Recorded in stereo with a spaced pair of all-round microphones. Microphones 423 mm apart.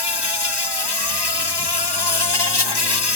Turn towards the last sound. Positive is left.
turn(degrees=70)  # may be behind; listen again after turning